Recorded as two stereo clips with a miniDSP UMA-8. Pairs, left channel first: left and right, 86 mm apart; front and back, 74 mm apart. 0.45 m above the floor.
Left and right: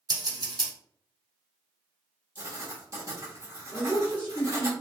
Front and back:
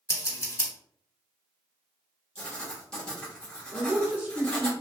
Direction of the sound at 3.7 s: 140° left.